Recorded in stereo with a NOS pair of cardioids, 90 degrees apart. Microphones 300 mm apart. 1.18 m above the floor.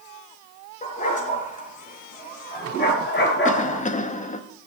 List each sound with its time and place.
0.8 s a dog barking: 25° left, 7 m; by 3.8 s 40° left, 6 m
3.5 s a cough: 25° left, 2.5 m